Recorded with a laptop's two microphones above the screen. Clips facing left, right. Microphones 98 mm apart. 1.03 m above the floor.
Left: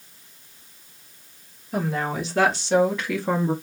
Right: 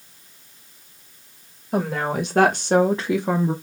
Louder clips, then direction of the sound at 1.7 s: Right 3 dB; 70° right (ahead or behind).